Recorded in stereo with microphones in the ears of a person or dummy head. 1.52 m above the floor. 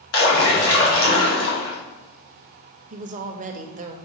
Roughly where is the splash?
Left.